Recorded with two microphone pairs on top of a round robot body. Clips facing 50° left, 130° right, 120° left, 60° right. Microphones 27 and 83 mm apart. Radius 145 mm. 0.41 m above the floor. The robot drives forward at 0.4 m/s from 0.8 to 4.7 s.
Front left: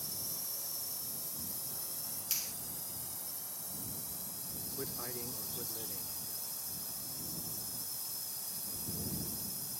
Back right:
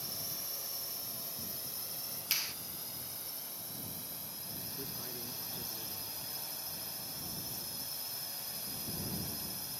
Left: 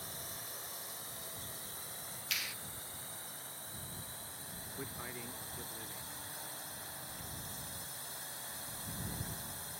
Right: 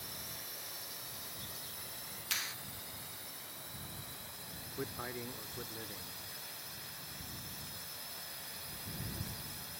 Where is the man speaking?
5° left.